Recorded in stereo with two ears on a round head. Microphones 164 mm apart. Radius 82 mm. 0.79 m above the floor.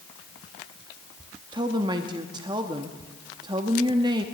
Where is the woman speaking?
25° right (ahead or behind), 0.8 m.